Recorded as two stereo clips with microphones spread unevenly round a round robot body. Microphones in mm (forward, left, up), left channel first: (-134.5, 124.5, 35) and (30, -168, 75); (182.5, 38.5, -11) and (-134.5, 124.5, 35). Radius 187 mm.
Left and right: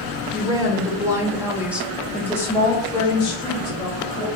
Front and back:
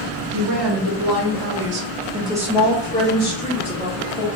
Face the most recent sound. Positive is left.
turn(degrees=45)